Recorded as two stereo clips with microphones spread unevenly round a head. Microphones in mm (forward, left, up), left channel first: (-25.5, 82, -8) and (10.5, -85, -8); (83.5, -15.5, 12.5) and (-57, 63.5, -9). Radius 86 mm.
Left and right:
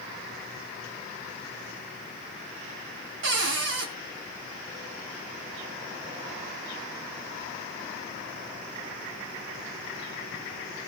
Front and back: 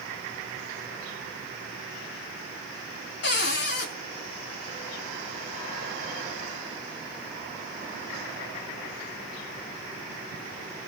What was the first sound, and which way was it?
A cupboard door, 55° right.